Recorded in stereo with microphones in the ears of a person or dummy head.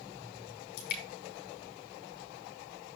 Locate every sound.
0.8 s dripping: 55° left (ahead or behind), 2 m